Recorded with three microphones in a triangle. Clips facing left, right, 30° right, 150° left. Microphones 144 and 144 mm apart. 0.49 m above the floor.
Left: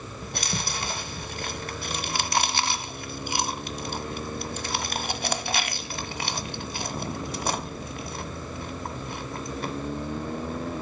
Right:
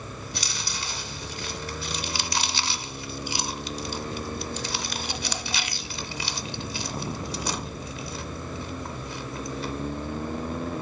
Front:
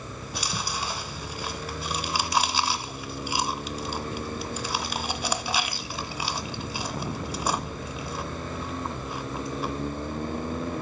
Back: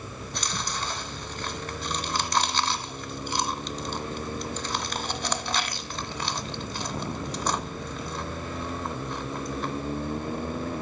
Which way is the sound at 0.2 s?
50° left.